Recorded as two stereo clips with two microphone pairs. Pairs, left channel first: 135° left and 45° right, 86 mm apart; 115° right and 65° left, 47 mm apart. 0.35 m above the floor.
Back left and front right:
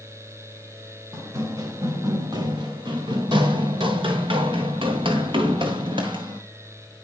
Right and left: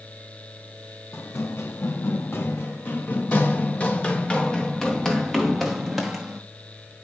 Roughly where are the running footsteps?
Right.